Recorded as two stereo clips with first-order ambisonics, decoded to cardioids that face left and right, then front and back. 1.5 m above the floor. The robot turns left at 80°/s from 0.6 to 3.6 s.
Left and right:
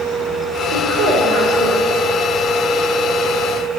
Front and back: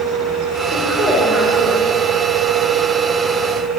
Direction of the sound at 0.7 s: 75° right.